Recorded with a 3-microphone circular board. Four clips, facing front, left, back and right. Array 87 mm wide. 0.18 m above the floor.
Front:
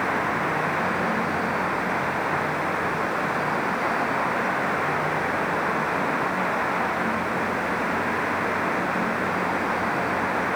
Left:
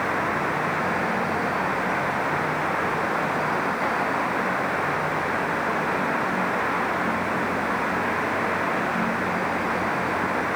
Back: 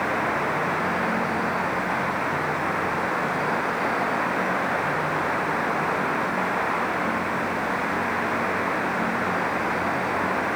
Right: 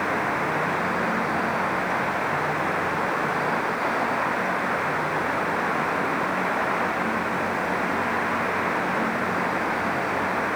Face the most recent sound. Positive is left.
No sound to turn to.